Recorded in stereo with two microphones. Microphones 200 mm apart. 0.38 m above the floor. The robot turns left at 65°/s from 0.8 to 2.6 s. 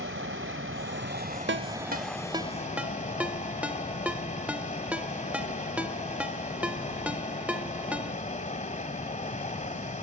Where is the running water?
100° right, 1.6 m; by 10.0 s 140° left, 1.6 m.